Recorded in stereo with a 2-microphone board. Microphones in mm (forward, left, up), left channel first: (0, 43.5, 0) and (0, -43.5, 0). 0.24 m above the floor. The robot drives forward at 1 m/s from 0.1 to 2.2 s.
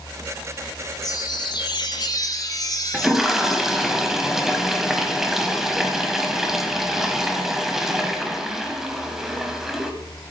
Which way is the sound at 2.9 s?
5° right (ahead or behind).